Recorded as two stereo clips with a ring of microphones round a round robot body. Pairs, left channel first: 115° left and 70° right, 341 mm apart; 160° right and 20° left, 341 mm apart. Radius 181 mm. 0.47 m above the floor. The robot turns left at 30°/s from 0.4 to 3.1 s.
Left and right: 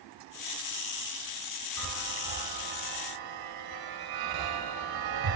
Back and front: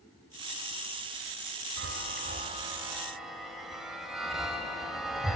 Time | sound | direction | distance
1.8 | a chime | 25° right | 3 m